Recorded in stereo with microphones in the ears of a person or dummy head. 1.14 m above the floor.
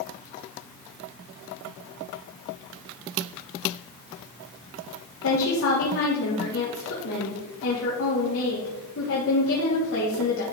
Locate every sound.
5.2 s a woman speaking: 70° left (ahead or behind), 2.5 m